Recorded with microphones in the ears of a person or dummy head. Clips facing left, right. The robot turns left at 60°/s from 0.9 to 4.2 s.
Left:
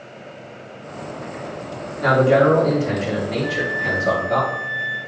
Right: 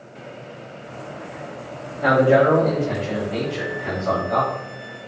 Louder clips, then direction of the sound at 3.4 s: Left 2 dB; 105° left.